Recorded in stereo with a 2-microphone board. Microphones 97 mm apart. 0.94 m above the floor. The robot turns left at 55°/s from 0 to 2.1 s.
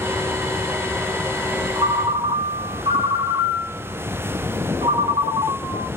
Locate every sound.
1.8 s a ringtone: 55° right (ahead or behind), 1.3 m; by 5.9 s 70° right (ahead or behind), 1.3 m